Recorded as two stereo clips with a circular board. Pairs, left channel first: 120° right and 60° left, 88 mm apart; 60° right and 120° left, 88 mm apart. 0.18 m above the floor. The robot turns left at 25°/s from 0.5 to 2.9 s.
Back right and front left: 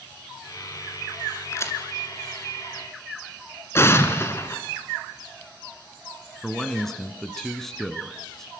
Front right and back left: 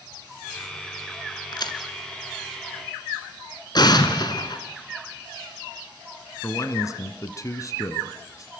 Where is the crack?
70° right, 2.0 m; by 1.8 s 75° right, 2.0 m.